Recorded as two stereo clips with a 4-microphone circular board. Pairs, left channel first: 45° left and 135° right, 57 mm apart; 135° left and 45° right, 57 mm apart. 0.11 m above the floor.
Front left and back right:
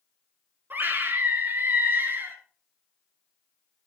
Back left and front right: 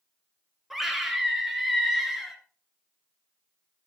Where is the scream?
130° right, 1.7 m.